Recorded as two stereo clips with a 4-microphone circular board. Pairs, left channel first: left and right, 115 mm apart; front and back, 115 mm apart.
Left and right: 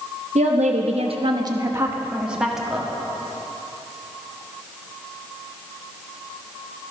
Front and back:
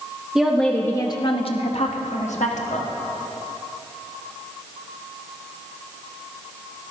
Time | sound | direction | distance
0.3 | a woman speaking | 95° right | 1.1 m